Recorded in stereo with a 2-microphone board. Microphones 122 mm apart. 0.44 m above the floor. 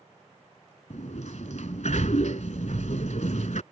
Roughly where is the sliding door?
Left.